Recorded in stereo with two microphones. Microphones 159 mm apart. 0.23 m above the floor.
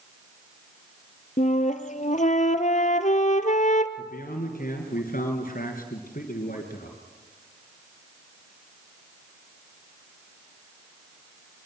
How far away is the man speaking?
About 3 m.